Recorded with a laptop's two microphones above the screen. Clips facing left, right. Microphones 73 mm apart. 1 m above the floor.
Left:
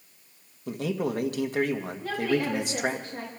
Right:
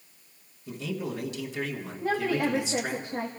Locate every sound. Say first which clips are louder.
0.7 s a man speaking: left 5 dB; 60° left (ahead or behind), 1.6 m
2.0 s a woman speaking: right 1 dB; 30° right (ahead or behind), 1.8 m